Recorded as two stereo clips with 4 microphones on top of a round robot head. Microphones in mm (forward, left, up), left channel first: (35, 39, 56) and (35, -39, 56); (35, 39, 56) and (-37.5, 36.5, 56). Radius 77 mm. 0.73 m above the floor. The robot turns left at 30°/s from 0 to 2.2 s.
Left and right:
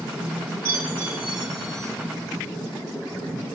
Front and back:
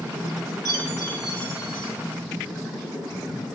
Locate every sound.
0.7 s a chime: 145° right, 2 m; by 1.9 s 175° left, 2 m